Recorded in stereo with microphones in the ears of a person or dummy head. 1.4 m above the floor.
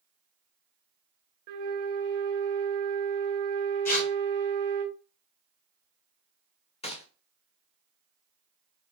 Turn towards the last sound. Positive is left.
turn(degrees=30)  # may be behind; listen again after turning